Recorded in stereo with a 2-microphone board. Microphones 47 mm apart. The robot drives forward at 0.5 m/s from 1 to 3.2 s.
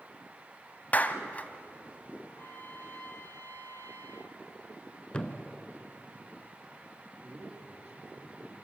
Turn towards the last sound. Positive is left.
turn(degrees=-35)  # may be behind; listen again after turning